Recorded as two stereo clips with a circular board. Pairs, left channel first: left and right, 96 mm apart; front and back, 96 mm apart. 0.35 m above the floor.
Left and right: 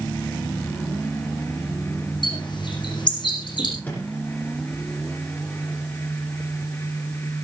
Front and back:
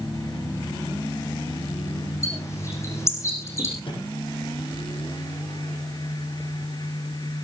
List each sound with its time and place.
2.2 s a bird: 60° left, 7 m
3.8 s a microwave: 20° left, 9 m